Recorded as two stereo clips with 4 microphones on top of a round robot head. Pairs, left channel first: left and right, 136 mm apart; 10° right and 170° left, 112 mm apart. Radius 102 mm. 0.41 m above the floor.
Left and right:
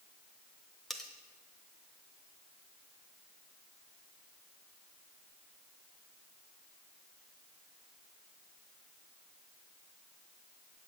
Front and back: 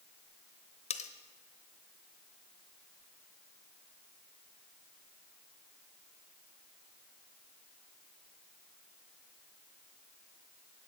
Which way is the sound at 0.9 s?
Straight ahead.